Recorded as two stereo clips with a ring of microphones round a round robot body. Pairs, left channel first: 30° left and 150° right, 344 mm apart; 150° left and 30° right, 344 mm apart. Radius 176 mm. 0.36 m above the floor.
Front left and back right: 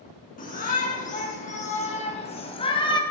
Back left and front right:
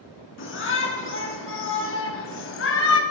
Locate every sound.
0.4 s a shout: 95° left, 4 m; by 3.0 s 105° left, 2 m